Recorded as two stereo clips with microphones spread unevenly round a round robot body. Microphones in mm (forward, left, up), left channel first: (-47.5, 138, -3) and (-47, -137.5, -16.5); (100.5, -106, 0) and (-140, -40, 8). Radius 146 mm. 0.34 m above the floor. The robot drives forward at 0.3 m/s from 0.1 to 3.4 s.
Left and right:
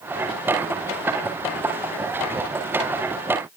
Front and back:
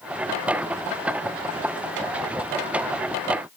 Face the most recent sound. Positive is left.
No sound to turn to.